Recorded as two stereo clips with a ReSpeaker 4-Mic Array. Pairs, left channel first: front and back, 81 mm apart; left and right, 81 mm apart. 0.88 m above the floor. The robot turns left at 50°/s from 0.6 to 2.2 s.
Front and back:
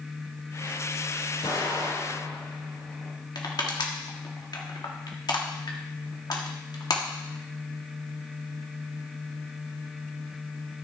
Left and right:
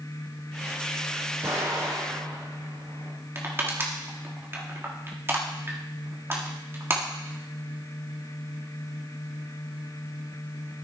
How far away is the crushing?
About 1.5 m.